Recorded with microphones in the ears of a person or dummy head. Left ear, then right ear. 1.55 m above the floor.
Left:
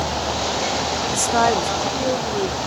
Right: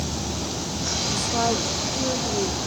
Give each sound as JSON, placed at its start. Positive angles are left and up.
{"t": 1.1, "sound": "a woman speaking", "side_deg": 50, "distance_m": 0.6}